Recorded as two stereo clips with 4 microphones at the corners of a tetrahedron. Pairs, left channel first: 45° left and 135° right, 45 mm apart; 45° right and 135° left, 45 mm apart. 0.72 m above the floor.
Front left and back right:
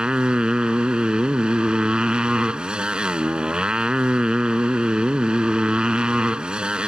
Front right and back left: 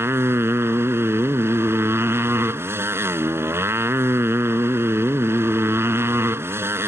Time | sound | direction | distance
0.0 | a motorcycle | 155° left | ?